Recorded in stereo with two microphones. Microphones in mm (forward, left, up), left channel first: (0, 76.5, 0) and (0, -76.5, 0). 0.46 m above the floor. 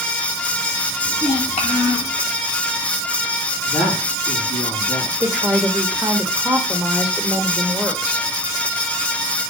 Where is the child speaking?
45° left (ahead or behind), 1.8 m.